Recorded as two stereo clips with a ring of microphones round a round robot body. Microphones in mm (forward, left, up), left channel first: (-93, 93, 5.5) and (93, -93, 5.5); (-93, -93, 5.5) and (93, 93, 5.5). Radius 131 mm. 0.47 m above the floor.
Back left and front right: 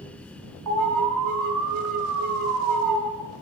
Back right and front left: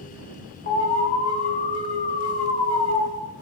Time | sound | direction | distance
0.7 | an alarm | 75° right | 3.5 m